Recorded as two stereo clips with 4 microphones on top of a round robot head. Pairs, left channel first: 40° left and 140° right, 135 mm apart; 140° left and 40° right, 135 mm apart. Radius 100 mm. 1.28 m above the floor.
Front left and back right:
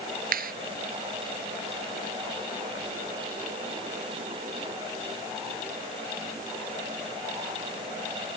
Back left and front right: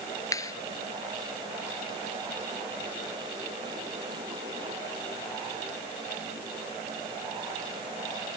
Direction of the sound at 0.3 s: 155° right.